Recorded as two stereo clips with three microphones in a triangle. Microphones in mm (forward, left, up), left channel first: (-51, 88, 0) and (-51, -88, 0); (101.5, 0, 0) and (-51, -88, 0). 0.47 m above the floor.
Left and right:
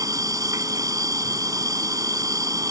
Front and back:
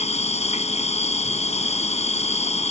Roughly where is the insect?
Ahead.